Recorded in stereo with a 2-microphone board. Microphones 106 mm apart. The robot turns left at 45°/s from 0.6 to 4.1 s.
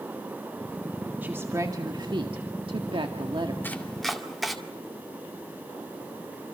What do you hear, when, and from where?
1.2 s a woman speaking: 20° right, 1.8 m; by 3.5 s 125° right, 1.8 m
3.6 s chopping: 20° left (ahead or behind), 2 m; by 4.6 s centre (ahead or behind), 2 m